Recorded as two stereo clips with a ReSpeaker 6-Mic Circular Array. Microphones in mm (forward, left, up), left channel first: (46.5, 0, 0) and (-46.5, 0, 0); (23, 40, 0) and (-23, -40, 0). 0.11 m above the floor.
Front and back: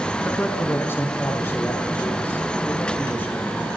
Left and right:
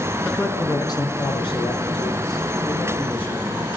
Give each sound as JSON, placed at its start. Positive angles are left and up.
{"t": 0.2, "sound": "a man speaking", "azimuth_deg": 20, "distance_m": 1.1}